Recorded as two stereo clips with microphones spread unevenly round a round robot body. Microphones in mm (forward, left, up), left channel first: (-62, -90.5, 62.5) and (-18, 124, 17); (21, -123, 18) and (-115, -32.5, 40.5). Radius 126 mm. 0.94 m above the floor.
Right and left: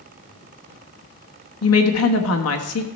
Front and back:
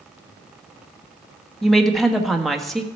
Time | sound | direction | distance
1.6 | a woman speaking | 120° right | 1.4 m